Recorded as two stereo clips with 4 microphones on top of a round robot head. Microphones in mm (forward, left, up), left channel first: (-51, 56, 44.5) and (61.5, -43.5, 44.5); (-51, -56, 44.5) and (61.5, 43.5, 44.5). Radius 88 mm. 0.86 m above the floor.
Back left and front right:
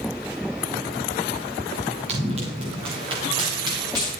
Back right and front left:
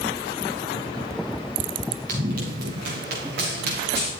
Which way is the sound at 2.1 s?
5° left.